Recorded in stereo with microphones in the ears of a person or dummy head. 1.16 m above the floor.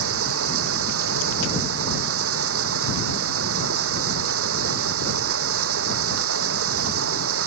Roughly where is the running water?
Right.